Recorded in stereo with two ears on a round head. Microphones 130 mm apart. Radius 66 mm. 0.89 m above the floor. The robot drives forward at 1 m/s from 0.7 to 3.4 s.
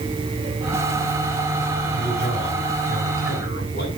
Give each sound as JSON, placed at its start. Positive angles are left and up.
{"t": 1.9, "sound": "a man speaking", "side_deg": 65, "distance_m": 7.5}